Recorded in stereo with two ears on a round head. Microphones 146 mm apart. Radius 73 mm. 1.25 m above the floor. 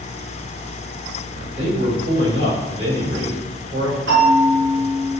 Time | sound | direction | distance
1.6 | a man speaking | 75° right (ahead or behind) | 1.9 m
4.1 | a bell | 65° right (ahead or behind) | 2.0 m